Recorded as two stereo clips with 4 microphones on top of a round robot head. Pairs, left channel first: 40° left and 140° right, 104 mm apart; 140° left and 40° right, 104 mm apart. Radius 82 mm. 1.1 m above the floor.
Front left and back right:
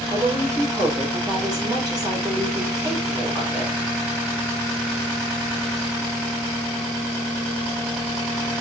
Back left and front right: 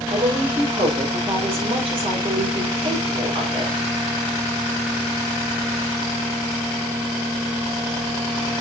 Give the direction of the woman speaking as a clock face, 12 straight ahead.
3 o'clock.